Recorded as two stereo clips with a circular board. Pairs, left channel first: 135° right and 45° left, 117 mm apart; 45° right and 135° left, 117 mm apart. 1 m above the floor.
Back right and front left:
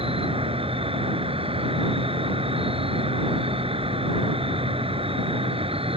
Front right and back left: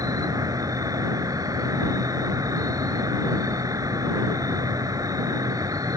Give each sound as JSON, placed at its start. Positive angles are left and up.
{"t": 0.0, "sound": "an insect", "azimuth_deg": 75}